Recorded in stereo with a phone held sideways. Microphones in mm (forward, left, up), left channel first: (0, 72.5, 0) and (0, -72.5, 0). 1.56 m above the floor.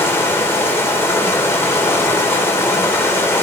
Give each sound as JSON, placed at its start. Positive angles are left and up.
{"t": 0.0, "sound": "running water", "side_deg": 15, "distance_m": 2.0}